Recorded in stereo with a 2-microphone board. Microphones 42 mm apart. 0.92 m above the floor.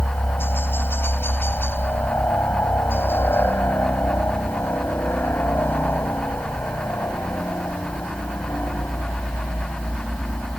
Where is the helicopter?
65° left (ahead or behind).